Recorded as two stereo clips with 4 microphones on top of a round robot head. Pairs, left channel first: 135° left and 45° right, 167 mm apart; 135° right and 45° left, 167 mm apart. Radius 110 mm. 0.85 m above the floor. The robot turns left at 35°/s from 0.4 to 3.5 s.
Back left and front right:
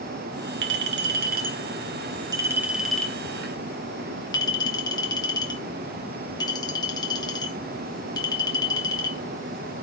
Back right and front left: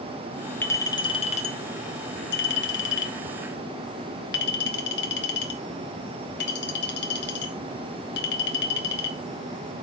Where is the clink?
55° right, 2 m; by 9.8 s 155° right, 2 m.